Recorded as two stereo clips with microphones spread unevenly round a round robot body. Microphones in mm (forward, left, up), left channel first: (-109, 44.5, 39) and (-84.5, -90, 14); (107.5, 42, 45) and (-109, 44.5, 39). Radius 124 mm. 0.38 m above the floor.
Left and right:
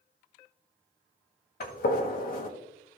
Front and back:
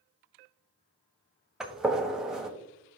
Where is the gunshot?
95° left, 1.4 m.